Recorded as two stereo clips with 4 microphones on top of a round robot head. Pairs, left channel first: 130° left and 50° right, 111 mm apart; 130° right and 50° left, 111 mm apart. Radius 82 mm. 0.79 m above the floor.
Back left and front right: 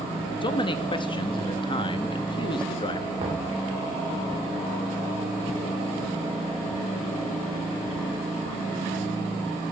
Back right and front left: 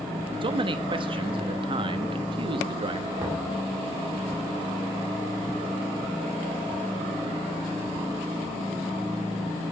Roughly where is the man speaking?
Left.